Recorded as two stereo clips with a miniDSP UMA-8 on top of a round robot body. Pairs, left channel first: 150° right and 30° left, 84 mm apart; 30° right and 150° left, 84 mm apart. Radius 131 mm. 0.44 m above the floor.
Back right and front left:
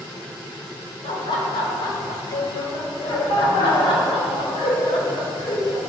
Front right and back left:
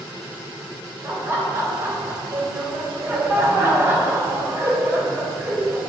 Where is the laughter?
150° right, 3 m.